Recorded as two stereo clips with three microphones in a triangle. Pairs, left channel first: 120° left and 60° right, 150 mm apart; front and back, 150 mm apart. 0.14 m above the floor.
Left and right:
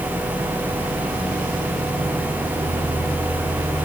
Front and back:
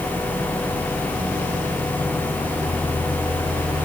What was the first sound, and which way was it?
Only background noise.